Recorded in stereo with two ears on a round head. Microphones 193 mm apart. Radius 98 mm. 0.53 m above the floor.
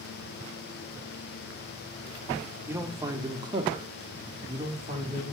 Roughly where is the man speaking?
Centre.